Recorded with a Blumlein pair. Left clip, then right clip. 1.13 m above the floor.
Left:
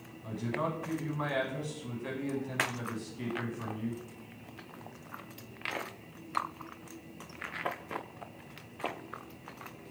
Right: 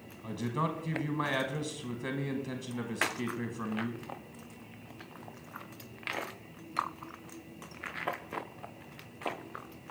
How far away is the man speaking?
About 0.8 m.